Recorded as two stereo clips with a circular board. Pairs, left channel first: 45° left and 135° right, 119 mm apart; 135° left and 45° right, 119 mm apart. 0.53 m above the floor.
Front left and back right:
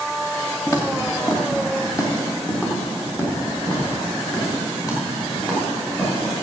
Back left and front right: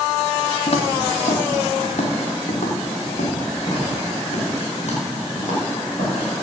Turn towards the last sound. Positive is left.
turn(degrees=110)